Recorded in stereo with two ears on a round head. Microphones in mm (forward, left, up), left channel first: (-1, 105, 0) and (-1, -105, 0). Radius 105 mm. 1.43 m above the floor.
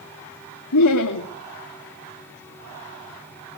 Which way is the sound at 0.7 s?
80° left.